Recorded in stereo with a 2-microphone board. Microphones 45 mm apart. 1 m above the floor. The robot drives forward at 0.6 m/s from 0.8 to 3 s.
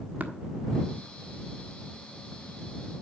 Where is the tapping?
40° right (ahead or behind), 1.5 m.